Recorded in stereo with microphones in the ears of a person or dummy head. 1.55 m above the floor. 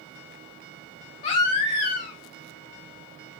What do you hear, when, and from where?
1.2 s a baby crying: 20° left (ahead or behind), 0.5 m